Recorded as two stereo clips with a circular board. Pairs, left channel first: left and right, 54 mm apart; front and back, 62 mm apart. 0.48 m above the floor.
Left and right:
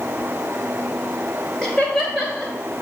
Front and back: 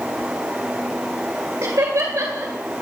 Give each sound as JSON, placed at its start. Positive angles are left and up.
{"t": 1.6, "sound": "laughter", "azimuth_deg": 170, "distance_m": 2.5}